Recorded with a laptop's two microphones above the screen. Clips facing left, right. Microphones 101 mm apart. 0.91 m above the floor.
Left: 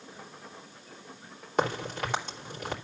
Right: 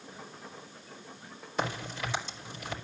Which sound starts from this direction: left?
A crack, at 1.6 s.